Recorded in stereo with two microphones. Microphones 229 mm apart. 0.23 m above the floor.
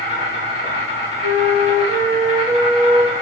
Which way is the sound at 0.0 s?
45° left (ahead or behind).